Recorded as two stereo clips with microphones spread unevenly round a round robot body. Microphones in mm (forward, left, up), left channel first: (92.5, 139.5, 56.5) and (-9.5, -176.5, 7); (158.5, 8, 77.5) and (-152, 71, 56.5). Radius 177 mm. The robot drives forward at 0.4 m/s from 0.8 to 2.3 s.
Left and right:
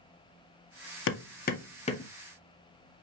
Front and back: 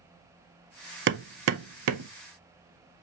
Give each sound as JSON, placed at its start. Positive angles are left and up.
{"t": 1.1, "sound": "hammering", "azimuth_deg": 125, "distance_m": 0.6}